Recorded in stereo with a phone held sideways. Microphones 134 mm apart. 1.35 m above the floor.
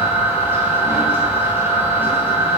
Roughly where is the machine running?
Centre.